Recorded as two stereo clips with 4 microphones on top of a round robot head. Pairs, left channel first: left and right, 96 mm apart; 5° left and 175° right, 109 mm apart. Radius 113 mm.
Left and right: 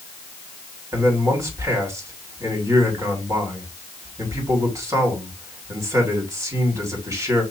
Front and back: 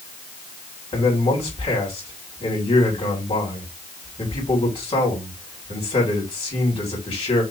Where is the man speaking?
30° right, 3 m.